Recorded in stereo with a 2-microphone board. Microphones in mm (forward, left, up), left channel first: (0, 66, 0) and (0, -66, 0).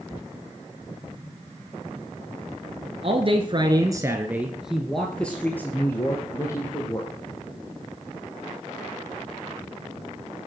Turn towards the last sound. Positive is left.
turn(degrees=25)  # may be behind; listen again after turning